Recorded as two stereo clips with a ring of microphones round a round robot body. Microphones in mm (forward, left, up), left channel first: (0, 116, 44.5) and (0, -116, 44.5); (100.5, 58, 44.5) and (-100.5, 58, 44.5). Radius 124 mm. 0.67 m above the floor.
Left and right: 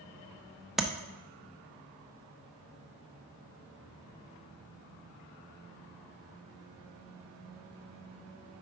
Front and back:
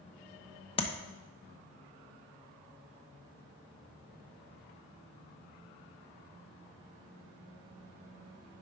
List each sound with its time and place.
0.8 s tapping: 5° right, 0.7 m